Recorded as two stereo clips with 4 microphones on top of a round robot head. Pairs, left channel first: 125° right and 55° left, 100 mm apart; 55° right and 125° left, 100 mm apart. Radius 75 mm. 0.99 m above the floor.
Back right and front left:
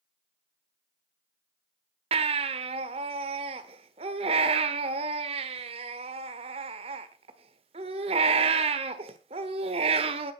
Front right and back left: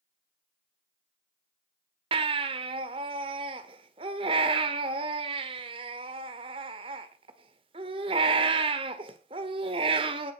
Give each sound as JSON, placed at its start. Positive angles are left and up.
{"t": 2.1, "sound": "a baby crying", "azimuth_deg": 85, "distance_m": 1.3}